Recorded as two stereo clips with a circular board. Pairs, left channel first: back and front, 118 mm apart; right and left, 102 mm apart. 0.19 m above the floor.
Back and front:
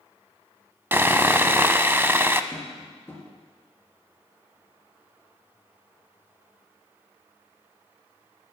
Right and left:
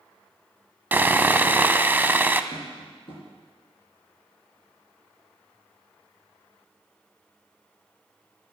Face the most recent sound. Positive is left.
turn(degrees=-110)